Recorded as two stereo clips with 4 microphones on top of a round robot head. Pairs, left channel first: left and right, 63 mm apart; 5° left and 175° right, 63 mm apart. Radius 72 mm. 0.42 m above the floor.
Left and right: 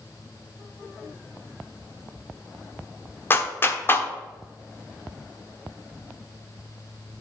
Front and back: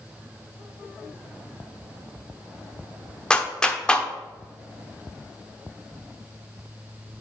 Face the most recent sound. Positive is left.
turn(degrees=70)